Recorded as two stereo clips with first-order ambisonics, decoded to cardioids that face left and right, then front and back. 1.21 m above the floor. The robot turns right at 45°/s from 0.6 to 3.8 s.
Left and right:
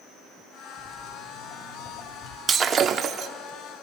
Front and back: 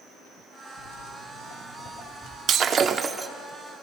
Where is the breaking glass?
145° right, 0.8 m; by 3.3 s 110° right, 0.8 m.